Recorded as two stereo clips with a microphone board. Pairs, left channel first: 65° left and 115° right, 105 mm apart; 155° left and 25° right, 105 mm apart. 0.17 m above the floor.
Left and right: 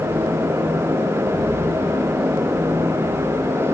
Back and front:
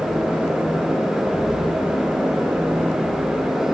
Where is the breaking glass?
No breaking glass in this recording.